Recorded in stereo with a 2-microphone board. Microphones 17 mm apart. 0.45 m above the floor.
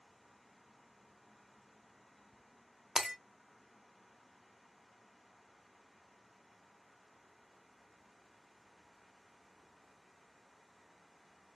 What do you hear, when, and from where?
3.0 s breaking glass: 35° right (ahead or behind), 0.7 m